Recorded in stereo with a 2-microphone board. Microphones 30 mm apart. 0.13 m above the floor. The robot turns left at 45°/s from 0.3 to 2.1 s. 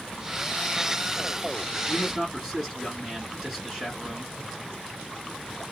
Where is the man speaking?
20° right (ahead or behind), 2 m; by 4.3 s 15° right (ahead or behind), 2 m.